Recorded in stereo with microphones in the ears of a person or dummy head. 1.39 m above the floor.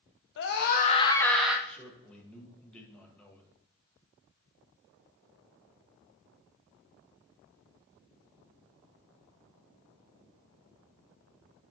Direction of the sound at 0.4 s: 65° left (ahead or behind).